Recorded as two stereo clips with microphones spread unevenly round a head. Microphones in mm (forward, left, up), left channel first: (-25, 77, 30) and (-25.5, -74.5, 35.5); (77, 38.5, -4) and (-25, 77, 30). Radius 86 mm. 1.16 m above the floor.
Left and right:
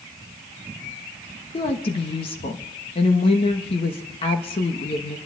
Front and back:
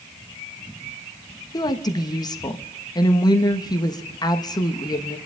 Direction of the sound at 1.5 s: 30° left.